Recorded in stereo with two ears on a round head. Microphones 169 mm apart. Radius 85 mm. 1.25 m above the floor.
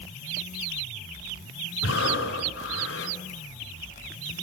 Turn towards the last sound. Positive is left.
turn(degrees=70)  # may be behind; listen again after turning